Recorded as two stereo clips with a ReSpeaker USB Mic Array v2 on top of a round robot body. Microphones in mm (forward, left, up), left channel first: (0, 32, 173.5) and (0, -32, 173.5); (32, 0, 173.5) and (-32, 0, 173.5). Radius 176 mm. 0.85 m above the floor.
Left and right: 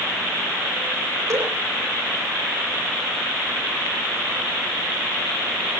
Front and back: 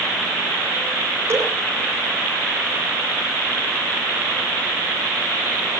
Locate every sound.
1.3 s dripping: 135° right, 9.5 m